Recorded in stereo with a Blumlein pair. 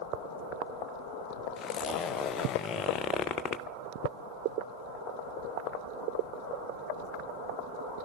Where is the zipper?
30° left, 0.6 m.